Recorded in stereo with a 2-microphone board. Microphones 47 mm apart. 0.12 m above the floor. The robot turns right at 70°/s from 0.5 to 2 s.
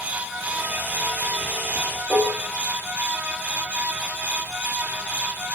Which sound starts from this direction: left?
Dishes clattering, at 2.1 s.